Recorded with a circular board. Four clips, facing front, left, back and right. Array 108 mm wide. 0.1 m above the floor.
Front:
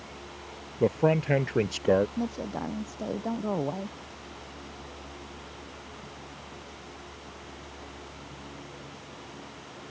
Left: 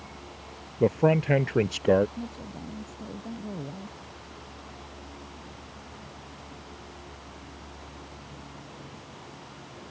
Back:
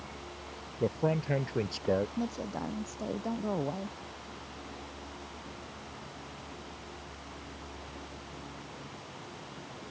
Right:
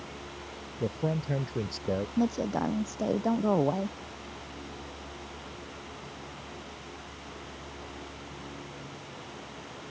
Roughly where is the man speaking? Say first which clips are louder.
Left 9 dB, front 6 dB; ahead left.